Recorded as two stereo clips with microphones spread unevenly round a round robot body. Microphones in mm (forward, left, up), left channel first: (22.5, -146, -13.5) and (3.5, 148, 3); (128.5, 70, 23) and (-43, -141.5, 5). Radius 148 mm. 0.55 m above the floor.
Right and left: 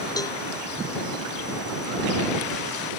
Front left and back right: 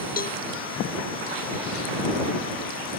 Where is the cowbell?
10° right.